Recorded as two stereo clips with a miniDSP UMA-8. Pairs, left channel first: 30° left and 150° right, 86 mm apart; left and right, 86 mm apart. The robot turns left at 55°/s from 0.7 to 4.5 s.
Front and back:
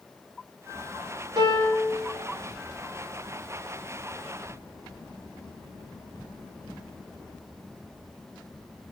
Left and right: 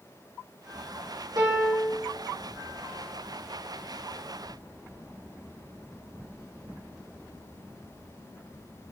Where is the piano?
125° right, 2.5 m; by 1.9 s 160° right, 2.5 m.